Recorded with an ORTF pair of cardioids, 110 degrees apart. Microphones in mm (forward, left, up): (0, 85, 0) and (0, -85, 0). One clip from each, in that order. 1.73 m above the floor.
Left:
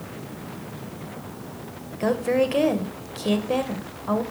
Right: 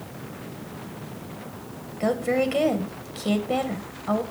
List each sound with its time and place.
2.0 s a woman speaking: straight ahead, 1.7 m